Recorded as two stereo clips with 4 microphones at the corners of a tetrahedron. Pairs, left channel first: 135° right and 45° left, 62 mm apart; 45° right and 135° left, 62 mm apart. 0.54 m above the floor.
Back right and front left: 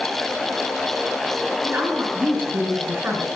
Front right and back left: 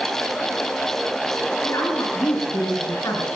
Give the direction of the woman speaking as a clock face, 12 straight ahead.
12 o'clock.